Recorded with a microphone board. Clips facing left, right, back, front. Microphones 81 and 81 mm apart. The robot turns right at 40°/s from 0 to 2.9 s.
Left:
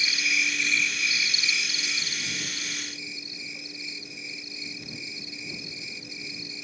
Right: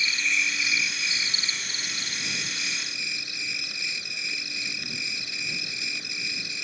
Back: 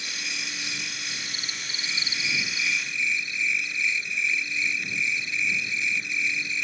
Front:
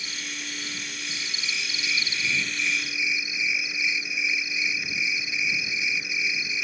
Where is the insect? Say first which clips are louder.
Right 1 dB, back 1 dB; 160° left; by 6.7 s 85° right.